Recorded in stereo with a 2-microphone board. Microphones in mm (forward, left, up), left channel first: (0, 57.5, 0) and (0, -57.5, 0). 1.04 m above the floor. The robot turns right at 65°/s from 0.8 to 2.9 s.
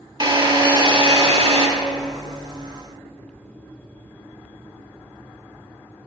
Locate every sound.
0.2 s a drill: 130° right, 1.1 m; by 1.7 s 70° right, 1.1 m